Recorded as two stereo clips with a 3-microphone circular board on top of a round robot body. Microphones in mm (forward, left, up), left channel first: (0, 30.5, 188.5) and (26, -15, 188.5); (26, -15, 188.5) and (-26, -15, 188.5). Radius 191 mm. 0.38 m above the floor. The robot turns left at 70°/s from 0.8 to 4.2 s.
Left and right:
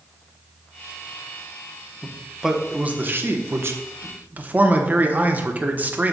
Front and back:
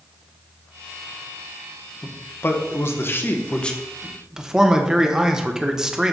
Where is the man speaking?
50° left, 1.3 m; by 6.1 s 105° right, 1.3 m.